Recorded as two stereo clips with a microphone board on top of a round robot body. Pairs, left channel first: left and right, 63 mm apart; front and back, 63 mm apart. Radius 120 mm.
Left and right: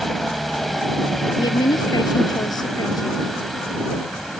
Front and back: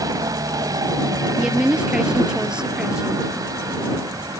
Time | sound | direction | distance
0.0 | a helicopter | straight behind | ?
1.4 | a woman speaking | 105° left | ?